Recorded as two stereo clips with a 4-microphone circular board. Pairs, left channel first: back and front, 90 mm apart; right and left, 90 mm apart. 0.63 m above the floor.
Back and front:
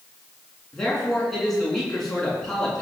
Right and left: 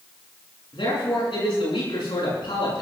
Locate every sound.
0.7 s a man speaking: 95° right, 9 m